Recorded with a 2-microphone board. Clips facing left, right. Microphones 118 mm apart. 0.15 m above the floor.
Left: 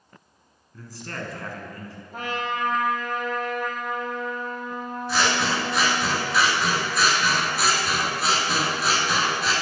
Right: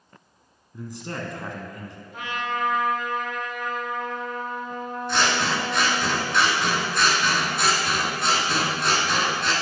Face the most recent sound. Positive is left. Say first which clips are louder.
# even
turn(degrees=0)  # may be behind; listen again after turning